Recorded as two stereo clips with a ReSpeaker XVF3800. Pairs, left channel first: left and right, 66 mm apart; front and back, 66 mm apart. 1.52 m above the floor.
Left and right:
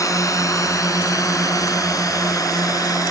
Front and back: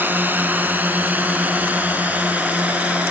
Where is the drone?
120° left; by 3.1 s 115° left.